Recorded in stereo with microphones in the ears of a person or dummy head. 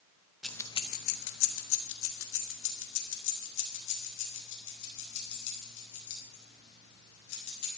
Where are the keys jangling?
Centre (ahead or behind), 0.7 m; by 7.7 s 65° left (ahead or behind), 7 m.